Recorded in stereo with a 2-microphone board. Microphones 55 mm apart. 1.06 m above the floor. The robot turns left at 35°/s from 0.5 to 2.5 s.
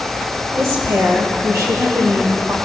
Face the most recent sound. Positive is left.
turn(degrees=-130)